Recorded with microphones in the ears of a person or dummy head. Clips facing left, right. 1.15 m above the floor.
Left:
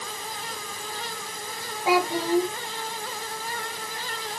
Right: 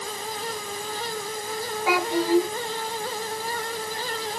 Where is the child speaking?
25° left (ahead or behind), 5 m.